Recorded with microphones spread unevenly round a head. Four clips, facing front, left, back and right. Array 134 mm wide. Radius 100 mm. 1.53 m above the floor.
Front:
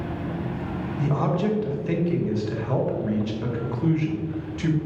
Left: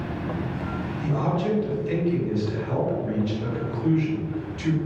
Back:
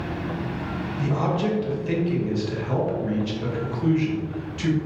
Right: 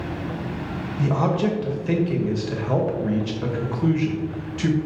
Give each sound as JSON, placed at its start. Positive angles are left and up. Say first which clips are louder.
{"t": 1.0, "sound": "a man speaking", "louder": "right 5 dB, even", "azimuth_deg": -80, "distance_m": 2.5}